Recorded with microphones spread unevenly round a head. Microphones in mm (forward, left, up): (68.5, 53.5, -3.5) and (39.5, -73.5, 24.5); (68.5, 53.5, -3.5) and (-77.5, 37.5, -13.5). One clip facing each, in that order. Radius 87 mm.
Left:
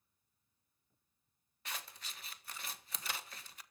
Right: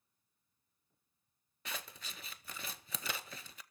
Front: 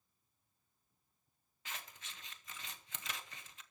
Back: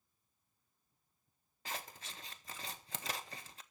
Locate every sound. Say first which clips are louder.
1.6 s scissors: right 2 dB, back 6 dB; 110° right, 0.8 m